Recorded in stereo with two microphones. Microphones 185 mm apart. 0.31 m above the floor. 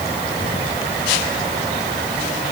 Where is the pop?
I don't hear a pop.